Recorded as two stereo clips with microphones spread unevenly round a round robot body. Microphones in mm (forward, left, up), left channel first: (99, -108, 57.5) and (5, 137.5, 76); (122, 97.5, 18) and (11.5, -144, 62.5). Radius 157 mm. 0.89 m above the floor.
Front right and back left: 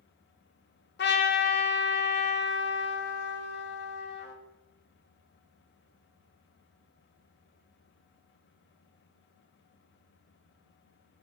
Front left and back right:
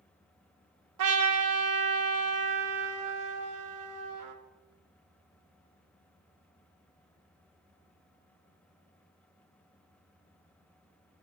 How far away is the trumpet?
About 1.3 m.